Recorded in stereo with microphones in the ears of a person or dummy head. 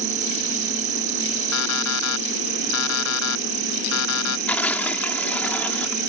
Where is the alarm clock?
75° left (ahead or behind).